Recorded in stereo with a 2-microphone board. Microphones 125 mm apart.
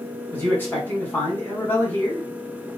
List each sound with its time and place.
0.3 s a man speaking: 15° left (ahead or behind), 1.4 m